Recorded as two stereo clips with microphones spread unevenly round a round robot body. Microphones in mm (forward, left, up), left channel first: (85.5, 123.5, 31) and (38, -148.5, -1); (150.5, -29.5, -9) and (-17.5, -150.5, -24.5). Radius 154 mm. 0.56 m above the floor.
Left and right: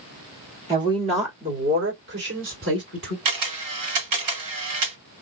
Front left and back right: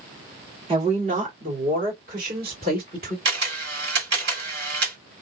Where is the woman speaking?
155° right, 1.4 m; by 3.1 s 120° right, 2.5 m.